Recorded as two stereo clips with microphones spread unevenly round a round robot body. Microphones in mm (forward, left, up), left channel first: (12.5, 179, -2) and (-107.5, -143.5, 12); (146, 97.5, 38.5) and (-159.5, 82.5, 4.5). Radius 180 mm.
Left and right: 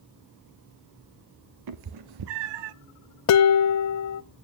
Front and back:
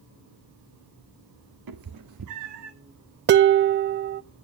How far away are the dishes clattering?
About 0.6 m.